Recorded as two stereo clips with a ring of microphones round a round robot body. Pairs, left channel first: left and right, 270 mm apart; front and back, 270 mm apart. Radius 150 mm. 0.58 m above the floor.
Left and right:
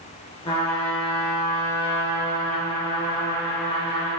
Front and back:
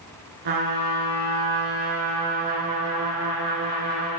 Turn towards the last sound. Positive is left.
turn(degrees=165)